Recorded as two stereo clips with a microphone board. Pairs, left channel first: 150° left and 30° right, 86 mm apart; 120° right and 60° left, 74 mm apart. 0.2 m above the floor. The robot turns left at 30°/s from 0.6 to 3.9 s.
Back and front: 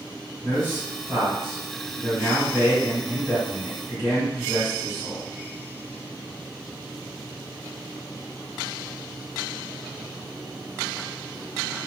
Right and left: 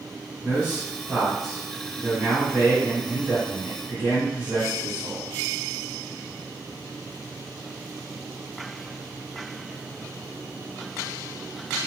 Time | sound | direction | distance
0.4 | a man speaking | 10° right | 1.8 m